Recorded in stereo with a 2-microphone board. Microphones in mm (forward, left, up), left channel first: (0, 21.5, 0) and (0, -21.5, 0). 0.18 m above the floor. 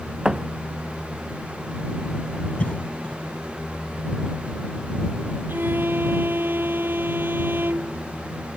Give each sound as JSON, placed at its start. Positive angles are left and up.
{"t": 0.2, "sound": "a thud", "side_deg": -15}
{"t": 2.6, "sound": "a cough", "side_deg": 30}
{"t": 5.5, "sound": "a violin", "side_deg": -55}